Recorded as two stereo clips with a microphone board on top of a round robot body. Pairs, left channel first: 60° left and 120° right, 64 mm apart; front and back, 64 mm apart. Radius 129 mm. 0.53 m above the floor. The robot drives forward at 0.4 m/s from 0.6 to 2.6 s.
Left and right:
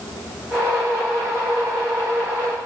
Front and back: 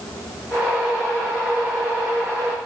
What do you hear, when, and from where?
Only background noise.